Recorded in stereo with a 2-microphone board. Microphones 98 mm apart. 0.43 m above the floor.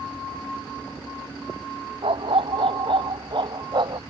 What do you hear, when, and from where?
2.0 s a dog barking: 65° right (ahead or behind); by 4.0 s 50° right (ahead or behind)